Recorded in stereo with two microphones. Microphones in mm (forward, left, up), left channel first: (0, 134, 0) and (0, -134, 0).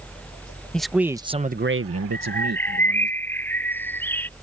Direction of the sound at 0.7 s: 5° left (ahead or behind).